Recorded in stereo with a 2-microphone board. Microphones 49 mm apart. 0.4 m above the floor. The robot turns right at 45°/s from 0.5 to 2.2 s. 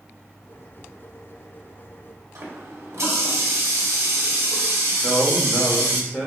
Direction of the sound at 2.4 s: 60° right (ahead or behind).